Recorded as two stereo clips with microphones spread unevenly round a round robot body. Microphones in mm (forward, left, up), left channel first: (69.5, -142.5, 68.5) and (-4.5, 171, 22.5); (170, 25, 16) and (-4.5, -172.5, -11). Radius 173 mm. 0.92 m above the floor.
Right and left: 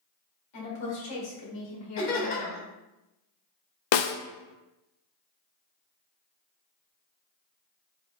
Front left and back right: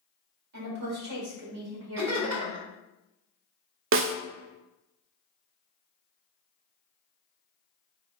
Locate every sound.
0.5 s a woman speaking: 120° right, 1.9 m
2.0 s laughter: 110° right, 1.8 m
3.9 s a snare drum: 95° right, 0.5 m